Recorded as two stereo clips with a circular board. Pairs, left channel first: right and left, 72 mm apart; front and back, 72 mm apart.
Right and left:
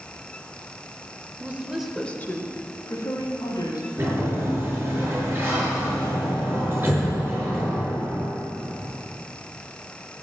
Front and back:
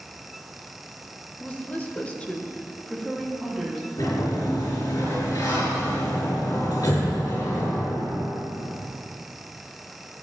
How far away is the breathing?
I don't hear breathing.